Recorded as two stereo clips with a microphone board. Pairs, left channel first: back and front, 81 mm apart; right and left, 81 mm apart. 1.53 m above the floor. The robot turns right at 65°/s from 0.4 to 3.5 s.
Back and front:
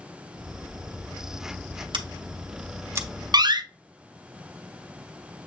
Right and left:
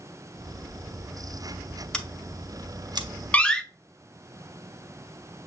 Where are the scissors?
10° right, 0.7 m; by 3.1 s 65° left, 0.7 m.